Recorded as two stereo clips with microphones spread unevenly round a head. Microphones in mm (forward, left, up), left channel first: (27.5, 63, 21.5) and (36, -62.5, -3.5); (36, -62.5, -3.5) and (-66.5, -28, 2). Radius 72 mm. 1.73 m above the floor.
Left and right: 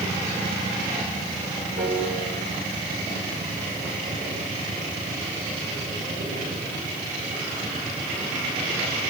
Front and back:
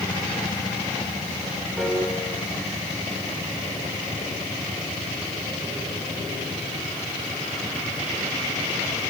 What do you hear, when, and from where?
1.8 s a piano: 110° right, 6 m